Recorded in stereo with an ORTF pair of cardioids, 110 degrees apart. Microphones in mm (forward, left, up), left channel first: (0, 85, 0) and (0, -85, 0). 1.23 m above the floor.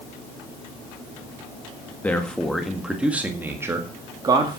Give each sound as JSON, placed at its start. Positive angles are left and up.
{"t": 2.0, "sound": "a man speaking", "azimuth_deg": 10, "distance_m": 1.9}